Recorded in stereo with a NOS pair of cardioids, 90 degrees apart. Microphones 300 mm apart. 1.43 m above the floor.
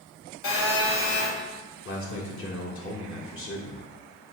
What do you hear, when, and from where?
0.4 s a phone buzzing: 65° left, 1.6 m
1.9 s a man speaking: 45° left, 1.3 m